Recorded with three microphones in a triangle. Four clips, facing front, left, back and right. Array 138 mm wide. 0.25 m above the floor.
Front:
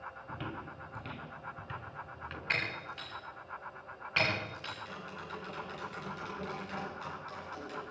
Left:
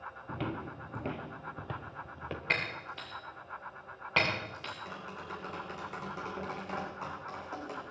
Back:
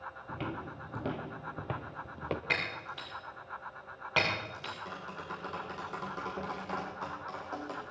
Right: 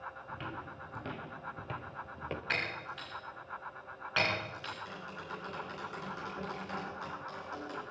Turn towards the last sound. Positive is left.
turn(degrees=145)